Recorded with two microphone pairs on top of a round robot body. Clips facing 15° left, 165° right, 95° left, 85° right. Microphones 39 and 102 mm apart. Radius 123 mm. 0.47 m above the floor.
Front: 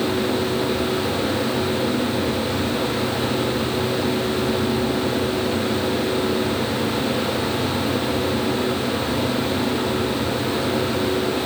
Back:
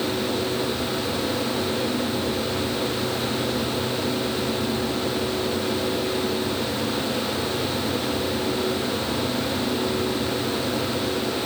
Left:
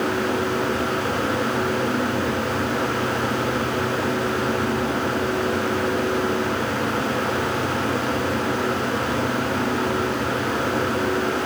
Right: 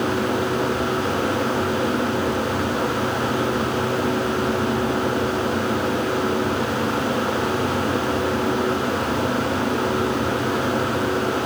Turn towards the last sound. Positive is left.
No sound to turn to.